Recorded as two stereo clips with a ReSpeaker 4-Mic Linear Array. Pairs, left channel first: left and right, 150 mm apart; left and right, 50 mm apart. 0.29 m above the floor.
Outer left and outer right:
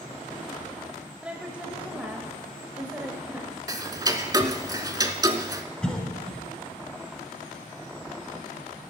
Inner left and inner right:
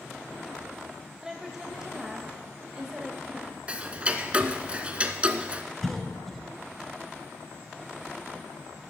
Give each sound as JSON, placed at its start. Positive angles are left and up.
{"t": 1.2, "sound": "a woman speaking", "side_deg": -10, "distance_m": 0.9}
{"t": 3.7, "sound": "ticking", "side_deg": -25, "distance_m": 0.6}
{"t": 5.8, "sound": "a cough", "side_deg": 5, "distance_m": 1.2}